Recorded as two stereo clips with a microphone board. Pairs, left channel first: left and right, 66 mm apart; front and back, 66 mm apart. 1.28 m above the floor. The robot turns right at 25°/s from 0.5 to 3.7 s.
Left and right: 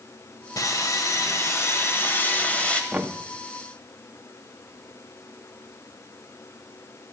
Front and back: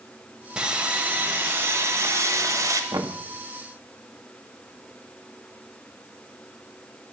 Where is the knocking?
160° right, 1.3 m; by 3.2 s 155° right, 1.3 m.